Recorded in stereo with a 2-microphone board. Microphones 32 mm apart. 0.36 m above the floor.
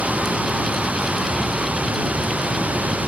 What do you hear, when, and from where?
0.0 s running water: 60° right (ahead or behind)